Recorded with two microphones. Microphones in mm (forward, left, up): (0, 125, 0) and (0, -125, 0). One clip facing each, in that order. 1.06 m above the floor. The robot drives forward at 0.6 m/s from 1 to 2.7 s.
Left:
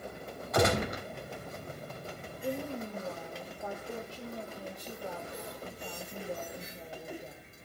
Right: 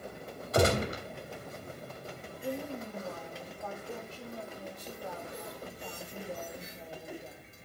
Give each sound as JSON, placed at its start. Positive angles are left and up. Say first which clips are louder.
{"t": 0.5, "sound": "a gunshot", "louder": "right 1 dB", "side_deg": -35, "distance_m": 3.0}
{"t": 2.4, "sound": "a woman speaking", "louder": "left 1 dB", "side_deg": 15, "distance_m": 2.5}